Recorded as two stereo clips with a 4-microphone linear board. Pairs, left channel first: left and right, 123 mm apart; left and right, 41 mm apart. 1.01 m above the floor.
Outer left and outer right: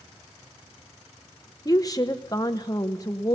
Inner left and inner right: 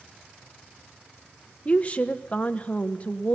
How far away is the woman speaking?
About 0.7 m.